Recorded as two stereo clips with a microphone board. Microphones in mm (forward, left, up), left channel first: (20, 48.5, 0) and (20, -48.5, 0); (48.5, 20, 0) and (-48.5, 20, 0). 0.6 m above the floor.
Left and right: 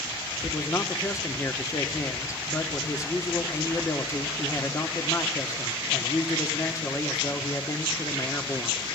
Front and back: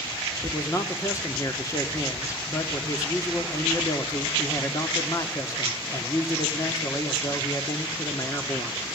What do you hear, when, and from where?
0.4 s a man speaking: 45° left, 1.5 m